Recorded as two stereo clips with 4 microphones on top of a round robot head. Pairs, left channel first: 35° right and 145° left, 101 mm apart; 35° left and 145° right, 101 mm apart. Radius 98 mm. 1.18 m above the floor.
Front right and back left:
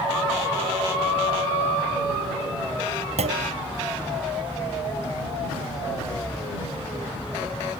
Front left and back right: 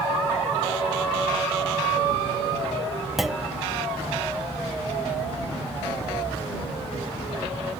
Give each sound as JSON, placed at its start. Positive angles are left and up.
{"t": 3.2, "sound": "a clunk", "azimuth_deg": 125}